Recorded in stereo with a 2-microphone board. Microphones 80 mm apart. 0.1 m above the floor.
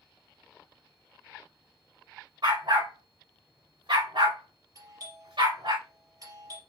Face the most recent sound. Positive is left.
turn(degrees=-50)  # may be behind; listen again after turning